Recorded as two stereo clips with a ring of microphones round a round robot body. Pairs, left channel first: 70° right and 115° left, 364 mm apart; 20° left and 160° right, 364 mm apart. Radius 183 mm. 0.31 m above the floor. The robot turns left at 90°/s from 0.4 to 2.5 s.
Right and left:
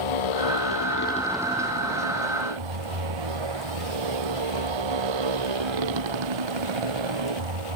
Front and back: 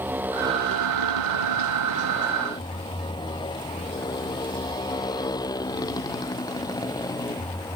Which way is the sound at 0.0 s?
75° right.